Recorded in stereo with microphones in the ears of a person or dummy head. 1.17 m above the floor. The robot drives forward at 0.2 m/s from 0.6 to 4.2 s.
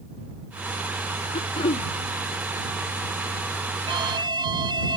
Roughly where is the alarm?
Right.